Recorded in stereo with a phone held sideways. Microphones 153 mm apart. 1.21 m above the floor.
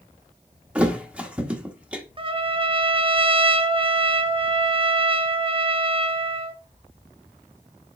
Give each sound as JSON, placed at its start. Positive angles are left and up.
{"t": 0.8, "sound": "a thud", "side_deg": -10, "distance_m": 1.1}
{"t": 2.2, "sound": "a trumpet", "side_deg": -35, "distance_m": 0.6}